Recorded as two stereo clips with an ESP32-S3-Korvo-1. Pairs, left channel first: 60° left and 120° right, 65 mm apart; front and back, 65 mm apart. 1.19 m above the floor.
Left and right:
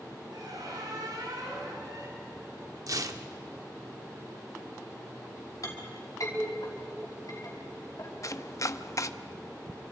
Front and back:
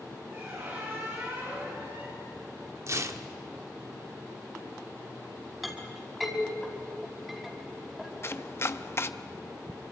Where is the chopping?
40° left, 0.7 m.